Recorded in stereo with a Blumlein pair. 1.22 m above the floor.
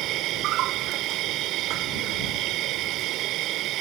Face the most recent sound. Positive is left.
turn(degrees=-35)